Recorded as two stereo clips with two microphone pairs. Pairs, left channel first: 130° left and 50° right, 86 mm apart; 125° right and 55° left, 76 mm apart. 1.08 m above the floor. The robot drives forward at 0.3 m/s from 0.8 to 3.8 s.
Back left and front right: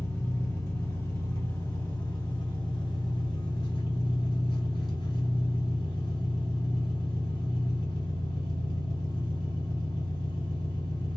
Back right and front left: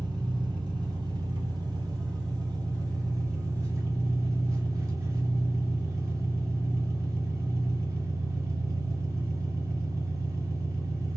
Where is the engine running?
70° left, 1.5 m; by 11.2 s 105° left, 1.5 m.